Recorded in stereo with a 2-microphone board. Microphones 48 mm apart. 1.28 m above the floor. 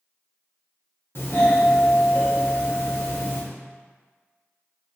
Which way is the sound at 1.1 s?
50° left (ahead or behind).